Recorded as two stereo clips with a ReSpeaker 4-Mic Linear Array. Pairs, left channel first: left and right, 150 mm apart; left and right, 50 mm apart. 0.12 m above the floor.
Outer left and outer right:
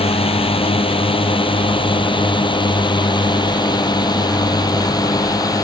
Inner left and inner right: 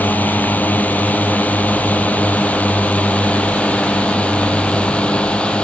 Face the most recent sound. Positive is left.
turn(degrees=25)  # may be behind; listen again after turning